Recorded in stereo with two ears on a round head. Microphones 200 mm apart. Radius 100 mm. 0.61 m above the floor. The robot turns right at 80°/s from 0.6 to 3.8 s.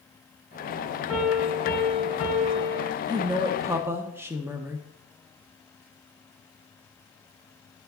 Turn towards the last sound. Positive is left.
turn(degrees=-10)  # may be behind; listen again after turning